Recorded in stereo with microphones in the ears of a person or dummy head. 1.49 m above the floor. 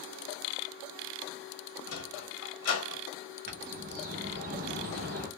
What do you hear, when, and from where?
1.9 s a sliding door: 65° left (ahead or behind), 1.1 m
3.5 s a bird: 35° right (ahead or behind), 0.5 m